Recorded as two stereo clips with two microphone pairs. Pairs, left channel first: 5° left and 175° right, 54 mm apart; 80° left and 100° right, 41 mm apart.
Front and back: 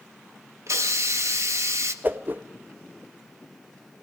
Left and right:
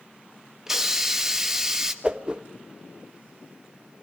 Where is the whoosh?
160° right, 1.1 m.